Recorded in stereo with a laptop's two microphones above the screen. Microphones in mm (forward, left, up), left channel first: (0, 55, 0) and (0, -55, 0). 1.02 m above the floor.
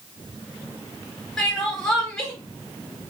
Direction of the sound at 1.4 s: Centre (ahead or behind).